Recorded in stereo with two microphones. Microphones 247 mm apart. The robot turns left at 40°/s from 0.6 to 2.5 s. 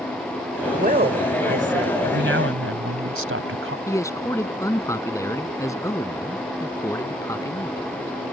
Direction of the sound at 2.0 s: 45° right (ahead or behind).